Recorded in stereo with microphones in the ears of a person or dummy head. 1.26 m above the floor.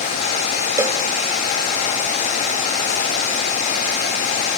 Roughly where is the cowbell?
Centre.